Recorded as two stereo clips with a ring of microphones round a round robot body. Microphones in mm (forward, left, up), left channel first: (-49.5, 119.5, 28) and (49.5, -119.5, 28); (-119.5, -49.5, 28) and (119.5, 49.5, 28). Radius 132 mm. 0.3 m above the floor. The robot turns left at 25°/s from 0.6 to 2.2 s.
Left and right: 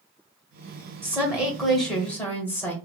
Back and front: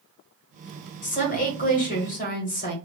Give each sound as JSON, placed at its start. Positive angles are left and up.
{"t": 1.0, "sound": "a woman speaking", "azimuth_deg": -140, "distance_m": 1.1}